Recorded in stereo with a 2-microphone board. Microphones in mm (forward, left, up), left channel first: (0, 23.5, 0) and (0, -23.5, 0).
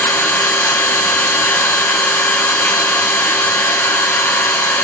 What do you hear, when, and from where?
0.0 s an engine running: 65° left (ahead or behind), 2 m